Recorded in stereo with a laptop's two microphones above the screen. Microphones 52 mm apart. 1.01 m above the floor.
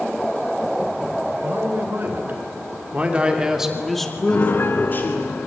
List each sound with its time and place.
1.4 s a man speaking: 45° right (ahead or behind), 4.5 m; by 5.3 s 50° left (ahead or behind), 2.5 m
4.3 s a piano: 40° left (ahead or behind), 1.9 m